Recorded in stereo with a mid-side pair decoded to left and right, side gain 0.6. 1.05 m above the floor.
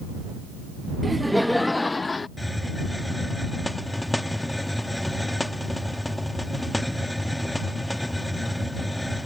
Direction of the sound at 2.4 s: 5° left.